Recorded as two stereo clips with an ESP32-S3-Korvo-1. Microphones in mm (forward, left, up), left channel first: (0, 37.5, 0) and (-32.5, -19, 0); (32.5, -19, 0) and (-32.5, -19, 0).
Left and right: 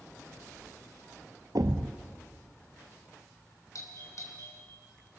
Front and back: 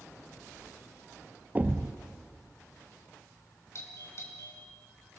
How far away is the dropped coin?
I don't hear a dropped coin.